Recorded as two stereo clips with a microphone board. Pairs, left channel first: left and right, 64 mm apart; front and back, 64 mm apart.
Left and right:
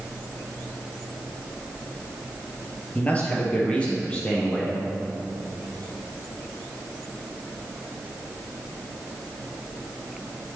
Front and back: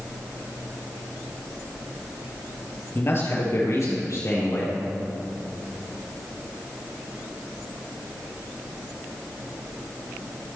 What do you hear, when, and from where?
3.0 s a man speaking: 35° left, 2 m; by 4.8 s 20° left, 4.5 m